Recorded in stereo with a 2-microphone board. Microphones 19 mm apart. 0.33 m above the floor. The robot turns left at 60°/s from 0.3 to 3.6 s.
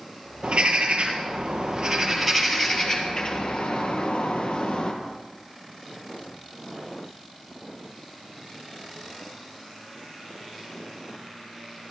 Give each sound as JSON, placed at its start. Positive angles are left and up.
{"t": 0.4, "sound": "a bird", "azimuth_deg": -65, "distance_m": 2.5}